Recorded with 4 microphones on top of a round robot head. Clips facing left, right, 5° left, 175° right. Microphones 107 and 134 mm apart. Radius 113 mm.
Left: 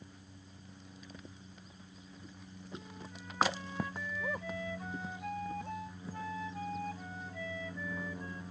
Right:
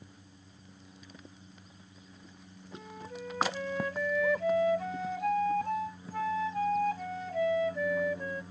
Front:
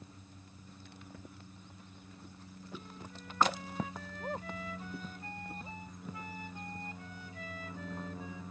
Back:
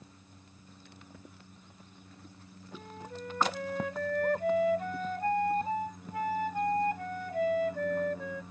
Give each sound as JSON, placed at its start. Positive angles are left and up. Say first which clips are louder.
{"t": 2.7, "sound": "a flute", "louder": "right 6 dB, back 6 dB", "azimuth_deg": -125}